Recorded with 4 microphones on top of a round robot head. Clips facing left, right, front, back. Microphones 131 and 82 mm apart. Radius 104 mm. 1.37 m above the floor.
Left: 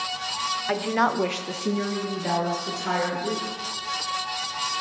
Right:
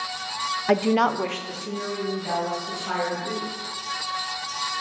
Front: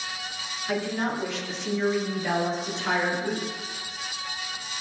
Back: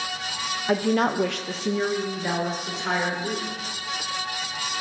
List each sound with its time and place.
0.7 s a woman speaking: 130° right, 0.7 m; by 3.5 s 100° left, 3 m